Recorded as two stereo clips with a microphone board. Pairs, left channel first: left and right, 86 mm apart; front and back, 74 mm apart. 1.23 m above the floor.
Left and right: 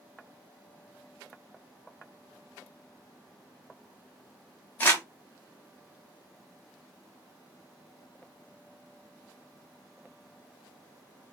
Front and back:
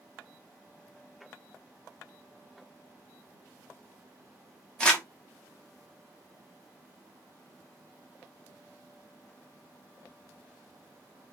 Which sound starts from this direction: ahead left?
Crumpling, at 4.8 s.